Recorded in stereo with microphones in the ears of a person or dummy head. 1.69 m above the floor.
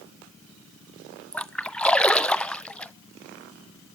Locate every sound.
1.3 s a splash: 5° left (ahead or behind), 0.6 m